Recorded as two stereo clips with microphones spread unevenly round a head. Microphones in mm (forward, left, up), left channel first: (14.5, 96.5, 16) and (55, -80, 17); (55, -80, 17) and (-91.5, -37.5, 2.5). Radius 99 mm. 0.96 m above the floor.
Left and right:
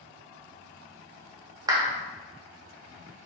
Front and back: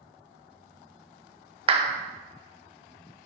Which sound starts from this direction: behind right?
A clap, at 1.7 s.